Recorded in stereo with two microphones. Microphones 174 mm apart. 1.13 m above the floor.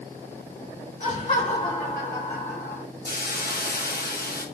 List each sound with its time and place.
1.0 s laughter: 45° left (ahead or behind), 2 m; by 2.8 s 65° left (ahead or behind), 1.3 m
3.0 s a hiss: 60° left (ahead or behind), 0.9 m